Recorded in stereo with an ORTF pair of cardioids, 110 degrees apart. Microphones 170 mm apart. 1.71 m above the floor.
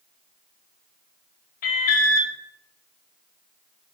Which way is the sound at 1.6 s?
60° left.